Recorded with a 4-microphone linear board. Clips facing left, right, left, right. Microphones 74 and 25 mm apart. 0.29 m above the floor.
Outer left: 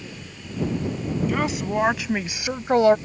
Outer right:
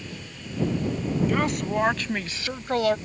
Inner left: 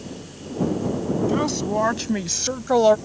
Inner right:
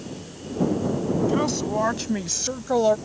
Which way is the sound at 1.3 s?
Centre (ahead or behind).